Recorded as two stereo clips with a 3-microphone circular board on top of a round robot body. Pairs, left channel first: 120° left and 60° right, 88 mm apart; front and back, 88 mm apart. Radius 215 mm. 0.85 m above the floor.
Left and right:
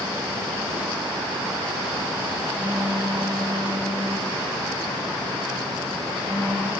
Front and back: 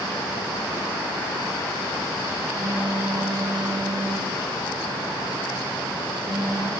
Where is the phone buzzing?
125° right, 8.5 m.